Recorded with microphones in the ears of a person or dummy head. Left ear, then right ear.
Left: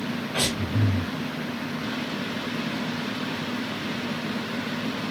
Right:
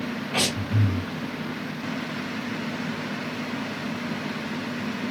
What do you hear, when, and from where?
0.3 s breathing: 55° right (ahead or behind), 2.5 m